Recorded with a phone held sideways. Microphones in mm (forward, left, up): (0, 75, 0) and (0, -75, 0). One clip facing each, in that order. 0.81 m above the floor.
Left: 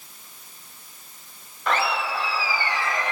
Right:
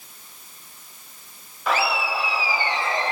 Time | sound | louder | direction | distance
1.7 | laughter | right 1 dB | 5° right (ahead or behind) | 2.5 m